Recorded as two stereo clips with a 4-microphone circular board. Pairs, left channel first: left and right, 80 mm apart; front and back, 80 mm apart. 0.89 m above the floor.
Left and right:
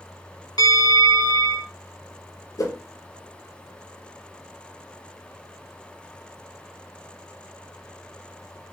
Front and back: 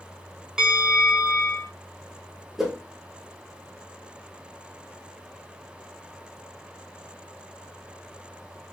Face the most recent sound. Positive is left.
turn(degrees=95)